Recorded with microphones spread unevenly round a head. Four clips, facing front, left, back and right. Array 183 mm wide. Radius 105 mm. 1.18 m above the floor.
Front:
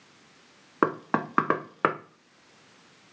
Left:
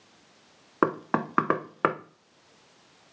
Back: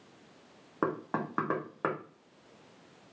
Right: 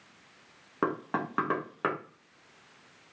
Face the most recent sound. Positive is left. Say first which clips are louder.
# left 5 dB, front 6 dB
turn(degrees=30)